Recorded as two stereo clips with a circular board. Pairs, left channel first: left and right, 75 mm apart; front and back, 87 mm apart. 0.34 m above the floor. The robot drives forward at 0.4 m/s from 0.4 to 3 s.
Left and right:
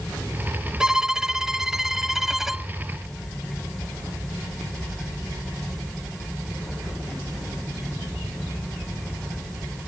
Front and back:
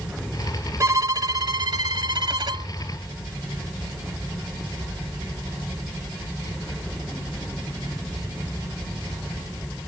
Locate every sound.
0.8 s a violin: 165° right; by 2.7 s 175° right